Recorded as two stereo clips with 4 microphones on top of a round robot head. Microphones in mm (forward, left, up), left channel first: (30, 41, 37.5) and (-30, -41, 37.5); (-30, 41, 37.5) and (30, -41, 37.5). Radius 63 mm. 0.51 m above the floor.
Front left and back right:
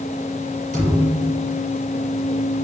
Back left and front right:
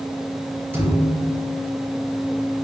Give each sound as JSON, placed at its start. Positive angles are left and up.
{"t": 0.7, "sound": "a thud", "azimuth_deg": -125, "distance_m": 6.5}